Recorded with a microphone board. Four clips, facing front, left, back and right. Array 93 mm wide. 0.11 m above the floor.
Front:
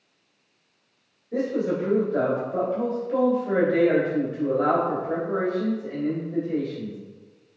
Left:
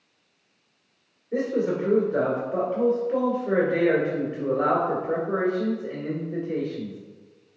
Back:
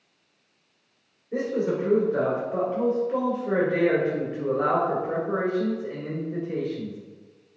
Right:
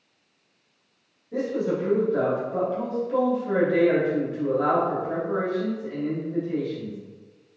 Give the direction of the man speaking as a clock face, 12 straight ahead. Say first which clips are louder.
Left 1 dB, front 1 dB; 8 o'clock.